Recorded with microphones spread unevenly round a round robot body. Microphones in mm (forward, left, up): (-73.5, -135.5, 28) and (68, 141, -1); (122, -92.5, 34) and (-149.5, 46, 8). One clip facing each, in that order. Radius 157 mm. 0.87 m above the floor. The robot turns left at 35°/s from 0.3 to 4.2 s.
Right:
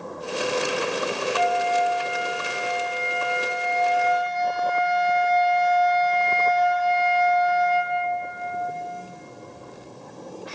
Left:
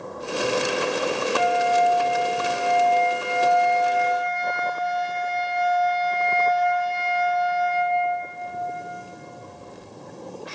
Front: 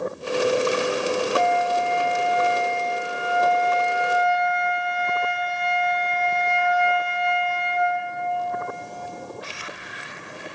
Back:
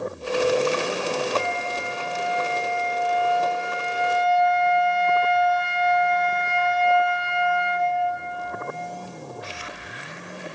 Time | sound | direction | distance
1.4 | a flute | 15° right | 1.0 m